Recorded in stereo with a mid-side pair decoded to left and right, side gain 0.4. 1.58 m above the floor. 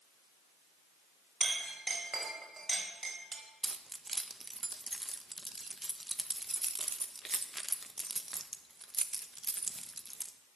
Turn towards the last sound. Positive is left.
turn(degrees=-25)